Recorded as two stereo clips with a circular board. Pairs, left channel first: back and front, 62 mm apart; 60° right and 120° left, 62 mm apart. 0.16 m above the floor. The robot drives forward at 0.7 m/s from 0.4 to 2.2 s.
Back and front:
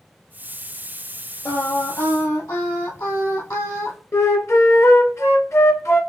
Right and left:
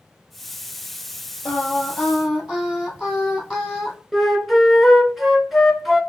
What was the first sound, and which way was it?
Singing, 145° right.